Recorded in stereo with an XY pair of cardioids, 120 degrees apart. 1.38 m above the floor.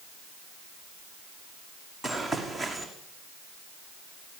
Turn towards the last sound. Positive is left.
turn(degrees=0)